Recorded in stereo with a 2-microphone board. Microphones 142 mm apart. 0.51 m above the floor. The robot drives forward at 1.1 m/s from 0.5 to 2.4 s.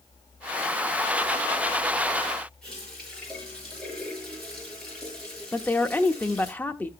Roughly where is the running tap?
Centre.